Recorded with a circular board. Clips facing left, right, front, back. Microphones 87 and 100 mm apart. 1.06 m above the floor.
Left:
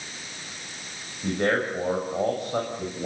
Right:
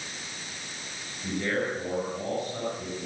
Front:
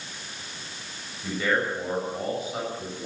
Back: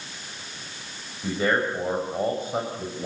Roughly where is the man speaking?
Behind left.